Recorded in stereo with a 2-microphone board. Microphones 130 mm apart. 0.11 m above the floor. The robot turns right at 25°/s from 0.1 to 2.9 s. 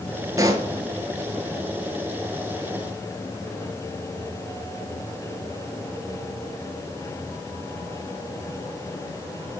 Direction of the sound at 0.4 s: 25° right (ahead or behind).